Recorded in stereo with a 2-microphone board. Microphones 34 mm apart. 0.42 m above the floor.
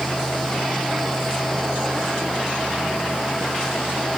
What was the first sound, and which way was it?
Only background noise.